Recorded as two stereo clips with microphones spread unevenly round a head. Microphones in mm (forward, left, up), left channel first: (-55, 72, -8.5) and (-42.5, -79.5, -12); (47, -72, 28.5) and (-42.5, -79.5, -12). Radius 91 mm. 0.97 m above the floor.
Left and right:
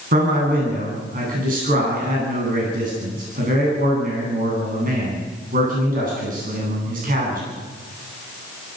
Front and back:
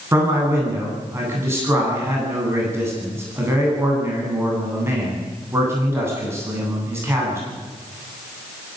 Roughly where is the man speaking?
Behind right.